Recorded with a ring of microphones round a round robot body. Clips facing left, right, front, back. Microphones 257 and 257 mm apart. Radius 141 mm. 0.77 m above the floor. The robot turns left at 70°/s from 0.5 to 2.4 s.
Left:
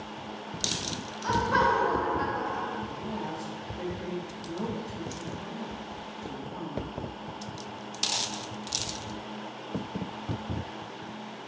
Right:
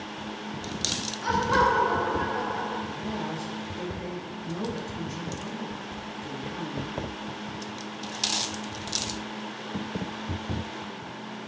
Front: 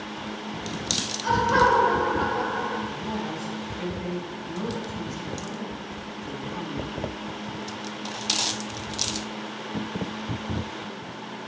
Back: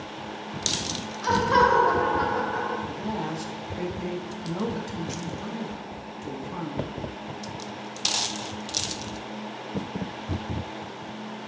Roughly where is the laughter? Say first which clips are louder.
Right 2 dB, back 1 dB; behind right.